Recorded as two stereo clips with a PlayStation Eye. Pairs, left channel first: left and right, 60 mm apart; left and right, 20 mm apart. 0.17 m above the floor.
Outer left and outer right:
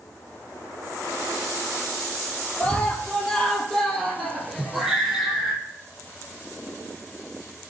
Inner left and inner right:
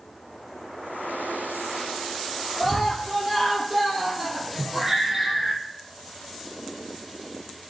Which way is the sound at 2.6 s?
15° left (ahead or behind).